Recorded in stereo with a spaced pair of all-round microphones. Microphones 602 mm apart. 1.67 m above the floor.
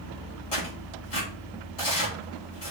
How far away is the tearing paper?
About 2.5 m.